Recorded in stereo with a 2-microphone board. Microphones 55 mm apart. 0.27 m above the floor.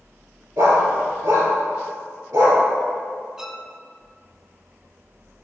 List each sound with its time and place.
0.6 s a dog barking: 80° right, 2.5 m
3.4 s a violin: 10° right (ahead or behind), 0.6 m